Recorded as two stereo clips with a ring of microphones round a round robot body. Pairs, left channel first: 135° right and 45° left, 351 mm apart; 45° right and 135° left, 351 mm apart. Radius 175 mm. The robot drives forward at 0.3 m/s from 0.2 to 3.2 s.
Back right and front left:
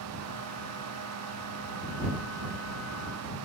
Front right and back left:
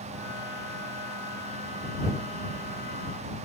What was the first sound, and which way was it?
Only background noise.